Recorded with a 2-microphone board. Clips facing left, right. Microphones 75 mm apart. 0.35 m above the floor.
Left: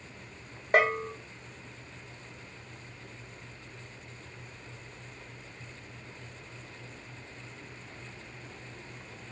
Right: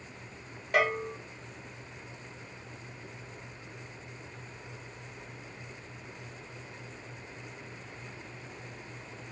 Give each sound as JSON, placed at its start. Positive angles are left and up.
{"t": 0.7, "sound": "a bell", "side_deg": 40, "distance_m": 0.8}